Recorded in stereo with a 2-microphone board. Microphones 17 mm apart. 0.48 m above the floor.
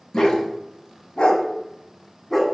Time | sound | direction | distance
0.1 | a dog barking | 60° left (ahead or behind) | 1.0 m